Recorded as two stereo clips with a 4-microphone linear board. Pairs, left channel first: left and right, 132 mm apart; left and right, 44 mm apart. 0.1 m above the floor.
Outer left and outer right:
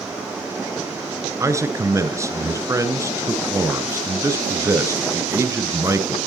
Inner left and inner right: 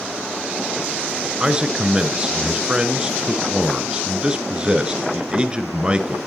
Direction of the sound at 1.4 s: 20° right (ahead or behind).